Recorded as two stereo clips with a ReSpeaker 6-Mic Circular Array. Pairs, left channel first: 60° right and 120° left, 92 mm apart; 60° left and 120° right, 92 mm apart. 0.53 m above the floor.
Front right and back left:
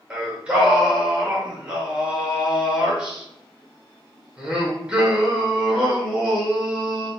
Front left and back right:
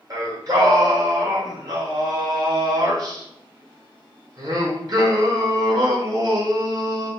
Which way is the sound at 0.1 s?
165° right.